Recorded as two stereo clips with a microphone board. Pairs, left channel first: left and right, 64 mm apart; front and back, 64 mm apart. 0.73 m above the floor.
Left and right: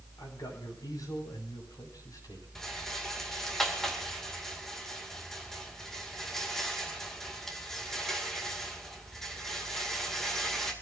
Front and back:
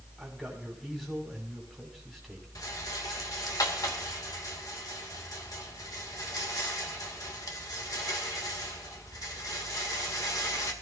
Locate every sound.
0.2 s a man speaking: 85° left, 5.5 m
2.5 s a rattle: 10° left, 2.5 m